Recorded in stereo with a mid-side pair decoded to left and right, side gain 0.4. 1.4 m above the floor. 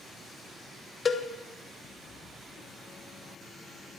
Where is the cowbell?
40° left, 1.2 m.